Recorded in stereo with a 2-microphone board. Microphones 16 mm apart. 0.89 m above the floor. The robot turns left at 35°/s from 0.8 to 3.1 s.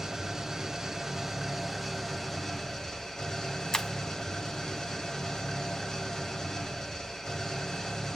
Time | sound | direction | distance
0.0 | an engine running | 145° right | 1.5 m
3.7 | breaking glass | 55° left (ahead or behind) | 0.7 m